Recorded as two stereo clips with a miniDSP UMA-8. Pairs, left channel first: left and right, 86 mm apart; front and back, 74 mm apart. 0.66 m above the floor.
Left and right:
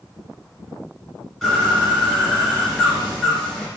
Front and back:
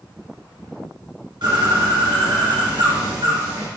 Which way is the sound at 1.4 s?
175° left.